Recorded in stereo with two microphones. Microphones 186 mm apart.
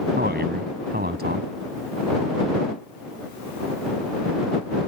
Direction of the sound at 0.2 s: 70° right (ahead or behind).